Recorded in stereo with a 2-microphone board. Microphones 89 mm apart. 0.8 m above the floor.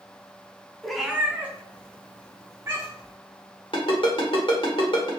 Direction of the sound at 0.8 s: 5° left (ahead or behind).